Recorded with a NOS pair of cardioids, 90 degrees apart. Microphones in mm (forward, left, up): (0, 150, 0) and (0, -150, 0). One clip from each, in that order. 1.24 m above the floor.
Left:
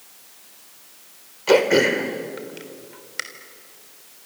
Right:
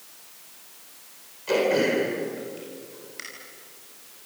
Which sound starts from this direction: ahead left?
Throat clearing, at 1.5 s.